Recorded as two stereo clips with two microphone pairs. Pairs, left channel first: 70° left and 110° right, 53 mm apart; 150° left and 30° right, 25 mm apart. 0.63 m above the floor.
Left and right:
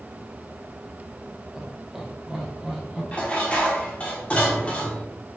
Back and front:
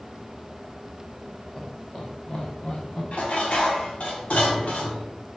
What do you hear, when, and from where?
1.6 s laughter: 175° right, 0.8 m; by 3.0 s 165° left, 1.6 m
3.1 s dishes clattering: 135° left, 1.0 m